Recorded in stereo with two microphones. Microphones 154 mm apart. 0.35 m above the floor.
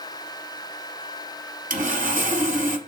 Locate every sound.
1.7 s sawing: 60° right (ahead or behind), 0.6 m